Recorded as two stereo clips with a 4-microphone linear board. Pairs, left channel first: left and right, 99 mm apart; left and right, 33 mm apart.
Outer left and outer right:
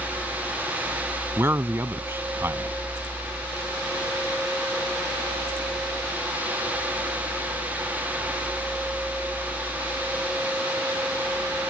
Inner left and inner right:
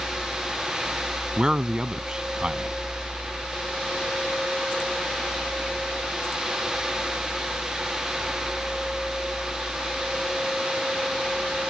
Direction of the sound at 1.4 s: 25° right (ahead or behind).